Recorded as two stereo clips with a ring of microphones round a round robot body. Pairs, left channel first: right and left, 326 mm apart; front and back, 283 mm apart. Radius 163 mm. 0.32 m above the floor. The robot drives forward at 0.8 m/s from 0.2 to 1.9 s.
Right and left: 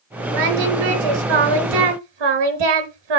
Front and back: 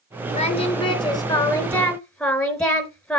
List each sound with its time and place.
0.3 s singing: 70° left, 4 m; by 3.2 s 85° left, 3.5 m